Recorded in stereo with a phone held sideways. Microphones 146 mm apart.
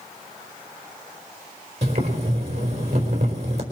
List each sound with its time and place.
1.8 s boiling: 45° right (ahead or behind), 4.5 m